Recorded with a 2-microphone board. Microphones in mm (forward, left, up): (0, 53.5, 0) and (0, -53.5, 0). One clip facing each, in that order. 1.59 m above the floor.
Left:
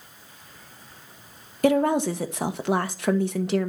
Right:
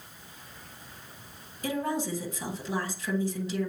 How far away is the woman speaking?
About 1.0 m.